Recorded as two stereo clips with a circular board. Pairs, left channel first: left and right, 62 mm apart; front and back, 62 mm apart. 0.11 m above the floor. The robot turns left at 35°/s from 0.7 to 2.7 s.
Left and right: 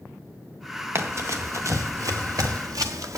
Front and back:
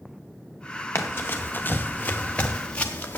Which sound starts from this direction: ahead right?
Running footsteps, at 0.9 s.